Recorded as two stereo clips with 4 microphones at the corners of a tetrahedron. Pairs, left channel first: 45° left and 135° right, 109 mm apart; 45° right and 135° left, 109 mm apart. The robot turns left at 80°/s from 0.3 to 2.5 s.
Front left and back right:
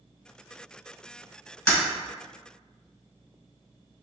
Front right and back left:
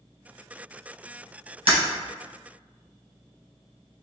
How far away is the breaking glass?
About 1.5 m.